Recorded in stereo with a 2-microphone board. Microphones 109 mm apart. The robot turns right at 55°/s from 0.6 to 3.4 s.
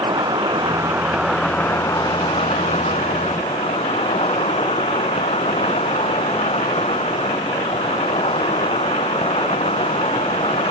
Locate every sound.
0.0 s an insect: 40° right; by 10.7 s 110° left